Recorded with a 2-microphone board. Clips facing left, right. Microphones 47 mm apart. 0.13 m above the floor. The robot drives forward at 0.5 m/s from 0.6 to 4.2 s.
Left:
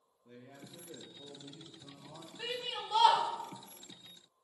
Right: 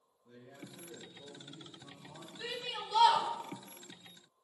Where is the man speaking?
60° left (ahead or behind), 2.5 m; by 2.3 s 45° left (ahead or behind), 3 m.